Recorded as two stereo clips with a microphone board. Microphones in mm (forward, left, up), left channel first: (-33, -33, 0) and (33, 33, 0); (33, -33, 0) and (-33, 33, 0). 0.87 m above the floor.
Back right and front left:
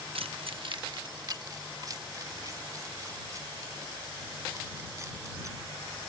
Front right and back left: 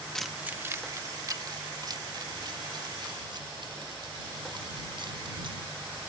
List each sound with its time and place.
0.1 s keys jangling: 40° left; by 6.0 s 105° left